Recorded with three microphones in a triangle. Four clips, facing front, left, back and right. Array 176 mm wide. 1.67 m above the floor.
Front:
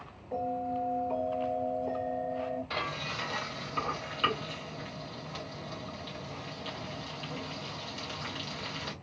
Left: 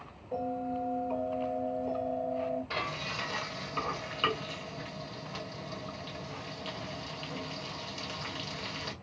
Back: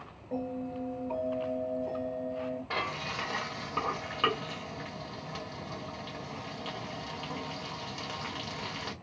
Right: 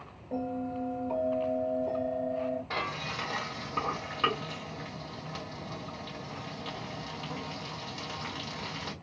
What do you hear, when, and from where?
0.3 s a bell: 125° right, 3.5 m
2.7 s frying: 160° right, 2.0 m